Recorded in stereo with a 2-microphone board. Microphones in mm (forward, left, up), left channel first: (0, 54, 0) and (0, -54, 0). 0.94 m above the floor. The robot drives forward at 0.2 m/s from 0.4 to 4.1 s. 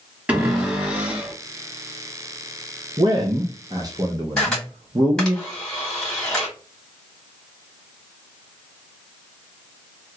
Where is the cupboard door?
15° right (ahead or behind), 1.5 m.